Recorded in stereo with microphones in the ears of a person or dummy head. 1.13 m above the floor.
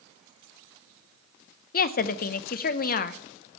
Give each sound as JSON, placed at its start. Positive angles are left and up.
{"t": 1.7, "sound": "a woman speaking", "side_deg": 45, "distance_m": 0.6}